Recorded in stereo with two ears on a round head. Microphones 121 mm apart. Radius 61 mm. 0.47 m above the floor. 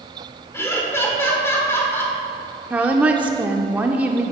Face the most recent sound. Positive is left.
turn(degrees=-10)  # may be behind; listen again after turning